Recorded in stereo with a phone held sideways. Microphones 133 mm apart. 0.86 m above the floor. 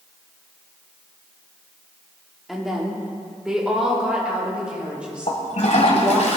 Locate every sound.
2.5 s a woman speaking: 5° right (ahead or behind), 2.5 m; by 6.3 s 10° right (ahead or behind), 6 m
5.3 s a toilet flushing: 60° left (ahead or behind), 1.9 m